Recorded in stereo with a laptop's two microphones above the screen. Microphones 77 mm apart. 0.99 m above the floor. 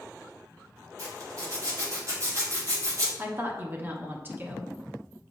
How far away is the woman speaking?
About 1.0 m.